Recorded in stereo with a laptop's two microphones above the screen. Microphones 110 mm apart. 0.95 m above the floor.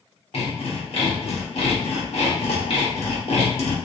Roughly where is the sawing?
Left.